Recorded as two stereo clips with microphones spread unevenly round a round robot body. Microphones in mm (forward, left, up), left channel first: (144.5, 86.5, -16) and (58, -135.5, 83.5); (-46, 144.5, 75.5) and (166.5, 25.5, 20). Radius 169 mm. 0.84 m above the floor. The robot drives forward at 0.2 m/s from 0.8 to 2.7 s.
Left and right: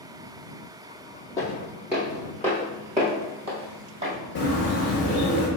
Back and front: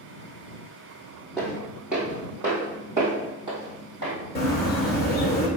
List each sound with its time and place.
1.4 s footsteps: 165° right, 0.8 m; by 4.1 s 110° right, 1.8 m
4.3 s a bird: 140° left, 0.7 m